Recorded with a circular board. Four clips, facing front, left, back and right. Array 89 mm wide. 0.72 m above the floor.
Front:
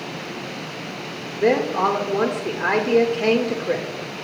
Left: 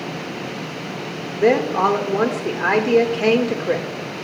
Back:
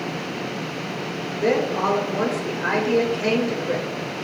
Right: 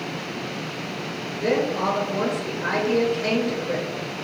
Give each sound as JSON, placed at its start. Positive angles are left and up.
{"t": 1.3, "sound": "a woman speaking", "azimuth_deg": 65, "distance_m": 2.0}